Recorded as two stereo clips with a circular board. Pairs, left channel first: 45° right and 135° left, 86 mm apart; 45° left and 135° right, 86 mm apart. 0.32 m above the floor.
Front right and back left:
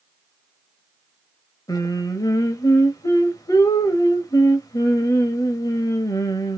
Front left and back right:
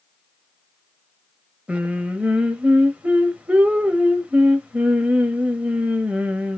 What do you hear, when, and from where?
1.7 s singing: 65° right, 0.9 m